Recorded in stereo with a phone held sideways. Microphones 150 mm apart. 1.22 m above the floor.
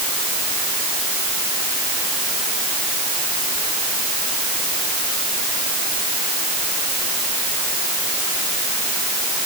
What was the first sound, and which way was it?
Only background noise.